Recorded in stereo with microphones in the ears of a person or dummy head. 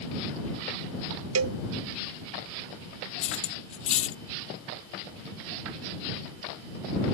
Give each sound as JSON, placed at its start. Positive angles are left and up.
{"t": 1.4, "sound": "a cowbell", "side_deg": -75}
{"t": 3.2, "sound": "cutlery clinking", "side_deg": 40}